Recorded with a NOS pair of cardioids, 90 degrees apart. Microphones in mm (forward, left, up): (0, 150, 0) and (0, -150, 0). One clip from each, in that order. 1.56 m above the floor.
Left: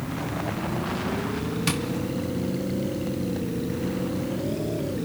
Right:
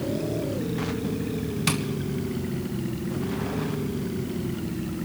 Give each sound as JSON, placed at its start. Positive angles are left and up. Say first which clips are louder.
{"t": 1.7, "sound": "tapping", "louder": "right 1 dB", "azimuth_deg": -10, "distance_m": 1.3}